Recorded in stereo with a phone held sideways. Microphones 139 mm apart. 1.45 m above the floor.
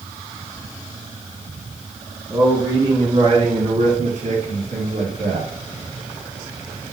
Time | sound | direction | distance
2.3 | a man speaking | 20° right (ahead or behind) | 1.6 m